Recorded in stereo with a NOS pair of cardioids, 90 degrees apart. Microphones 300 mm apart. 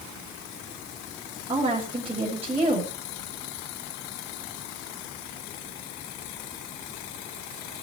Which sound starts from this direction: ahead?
A woman speaking, at 1.5 s.